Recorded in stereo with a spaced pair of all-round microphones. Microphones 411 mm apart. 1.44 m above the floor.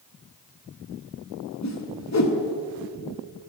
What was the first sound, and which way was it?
A whoosh, 40° left (ahead or behind).